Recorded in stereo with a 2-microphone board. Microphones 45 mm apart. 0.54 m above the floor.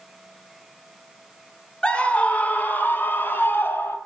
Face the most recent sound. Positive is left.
turn(degrees=70)  # may be behind; listen again after turning